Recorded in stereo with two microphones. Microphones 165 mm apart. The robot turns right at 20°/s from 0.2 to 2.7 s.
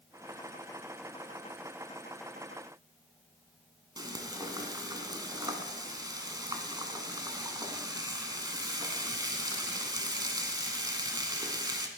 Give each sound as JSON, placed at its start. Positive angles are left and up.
{"t": 4.0, "sound": "frying", "side_deg": -25, "distance_m": 0.9}